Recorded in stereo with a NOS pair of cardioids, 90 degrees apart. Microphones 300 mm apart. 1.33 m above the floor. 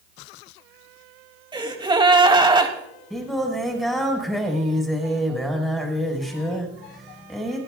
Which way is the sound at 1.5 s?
15° right.